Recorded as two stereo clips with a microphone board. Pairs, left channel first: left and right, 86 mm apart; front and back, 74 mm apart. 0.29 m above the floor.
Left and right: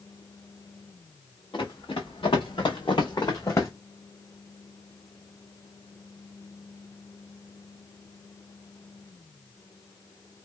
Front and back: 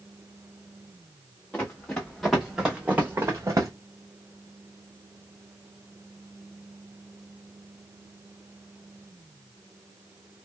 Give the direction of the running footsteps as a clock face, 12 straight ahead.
10 o'clock.